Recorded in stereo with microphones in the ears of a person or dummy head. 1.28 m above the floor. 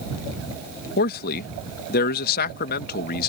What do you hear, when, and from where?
1.0 s a man speaking: 55° left (ahead or behind)